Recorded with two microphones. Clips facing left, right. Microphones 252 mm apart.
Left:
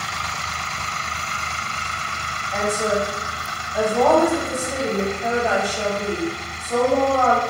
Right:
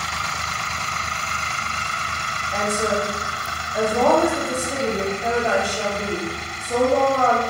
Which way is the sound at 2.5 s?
10° right (ahead or behind).